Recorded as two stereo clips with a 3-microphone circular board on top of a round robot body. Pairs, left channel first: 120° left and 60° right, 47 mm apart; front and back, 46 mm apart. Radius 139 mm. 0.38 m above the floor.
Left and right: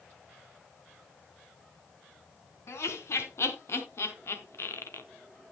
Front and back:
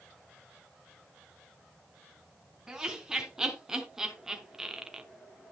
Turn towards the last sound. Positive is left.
turn(degrees=105)